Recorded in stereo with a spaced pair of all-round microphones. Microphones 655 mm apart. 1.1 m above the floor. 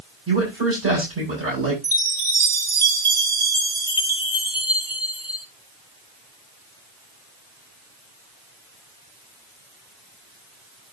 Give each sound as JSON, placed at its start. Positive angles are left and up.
{"t": 0.3, "sound": "a man speaking", "side_deg": -20, "distance_m": 7.0}
{"t": 1.8, "sound": "a chime", "side_deg": 15, "distance_m": 3.5}